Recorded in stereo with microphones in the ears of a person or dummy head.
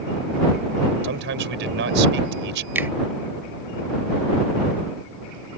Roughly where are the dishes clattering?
No dishes clattering in this recording.